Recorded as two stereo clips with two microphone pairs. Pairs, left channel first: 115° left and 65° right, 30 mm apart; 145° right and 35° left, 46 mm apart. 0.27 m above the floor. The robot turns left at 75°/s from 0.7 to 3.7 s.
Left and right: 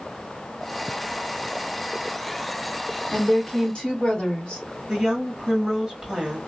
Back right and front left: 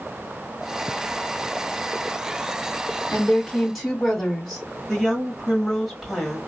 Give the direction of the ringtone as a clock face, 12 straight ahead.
No ringtone in this recording.